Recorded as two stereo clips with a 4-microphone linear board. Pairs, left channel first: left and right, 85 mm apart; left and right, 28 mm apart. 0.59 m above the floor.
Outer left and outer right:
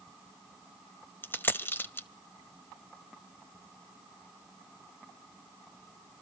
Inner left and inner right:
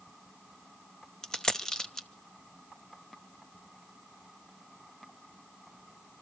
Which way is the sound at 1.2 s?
25° left (ahead or behind).